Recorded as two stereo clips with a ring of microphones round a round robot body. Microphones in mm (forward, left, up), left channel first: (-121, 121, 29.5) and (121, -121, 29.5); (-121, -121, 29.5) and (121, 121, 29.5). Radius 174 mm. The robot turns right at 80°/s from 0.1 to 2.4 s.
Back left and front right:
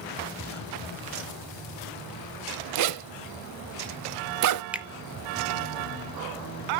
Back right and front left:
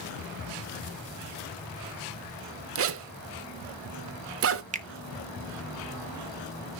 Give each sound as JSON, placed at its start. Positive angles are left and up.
{"t": 2.8, "sound": "a zipper", "azimuth_deg": -5, "distance_m": 0.7}
{"t": 4.7, "sound": "a finger snap", "azimuth_deg": 35, "distance_m": 0.7}